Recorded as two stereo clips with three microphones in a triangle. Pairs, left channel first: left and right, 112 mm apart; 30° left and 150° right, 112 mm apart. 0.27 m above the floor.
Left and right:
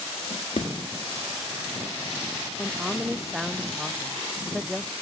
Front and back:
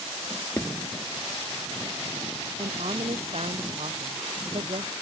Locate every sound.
0.3 s a drawer: 95° left
2.6 s a woman speaking: straight behind